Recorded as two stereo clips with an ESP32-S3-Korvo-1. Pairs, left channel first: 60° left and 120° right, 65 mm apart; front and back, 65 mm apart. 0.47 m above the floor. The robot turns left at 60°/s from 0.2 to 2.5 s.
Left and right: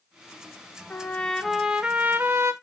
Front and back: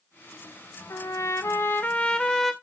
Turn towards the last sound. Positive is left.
turn(degrees=-90)